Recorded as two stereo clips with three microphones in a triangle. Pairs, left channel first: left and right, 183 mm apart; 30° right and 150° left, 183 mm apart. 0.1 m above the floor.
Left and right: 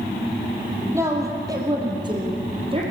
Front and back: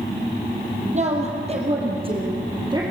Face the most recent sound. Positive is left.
turn(degrees=-145)